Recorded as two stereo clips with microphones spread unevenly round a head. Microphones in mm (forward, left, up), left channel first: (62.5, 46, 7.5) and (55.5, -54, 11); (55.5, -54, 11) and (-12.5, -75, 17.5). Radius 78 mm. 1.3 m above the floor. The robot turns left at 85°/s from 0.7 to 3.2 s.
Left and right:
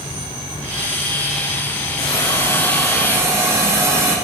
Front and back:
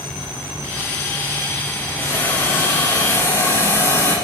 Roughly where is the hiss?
Left.